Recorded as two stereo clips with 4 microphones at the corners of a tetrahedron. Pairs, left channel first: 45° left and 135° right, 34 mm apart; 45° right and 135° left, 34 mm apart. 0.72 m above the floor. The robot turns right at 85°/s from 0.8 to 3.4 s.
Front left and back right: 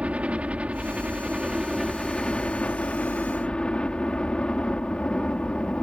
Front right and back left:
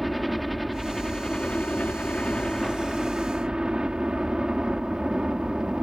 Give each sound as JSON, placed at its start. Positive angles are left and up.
{"t": 0.0, "sound": "a helicopter", "azimuth_deg": -140}